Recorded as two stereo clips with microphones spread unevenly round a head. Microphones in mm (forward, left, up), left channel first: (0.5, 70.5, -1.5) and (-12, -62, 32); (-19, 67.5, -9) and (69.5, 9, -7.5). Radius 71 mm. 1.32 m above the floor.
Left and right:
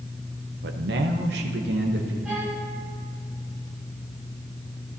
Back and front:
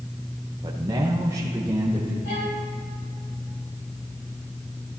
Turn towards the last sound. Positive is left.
turn(degrees=180)